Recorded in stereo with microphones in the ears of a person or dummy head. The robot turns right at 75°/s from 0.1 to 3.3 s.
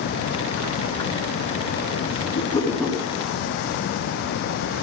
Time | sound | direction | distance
2.4 | a whoosh | 145° left | 5 m